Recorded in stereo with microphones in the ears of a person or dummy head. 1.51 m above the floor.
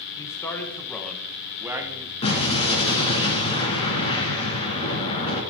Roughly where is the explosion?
Left.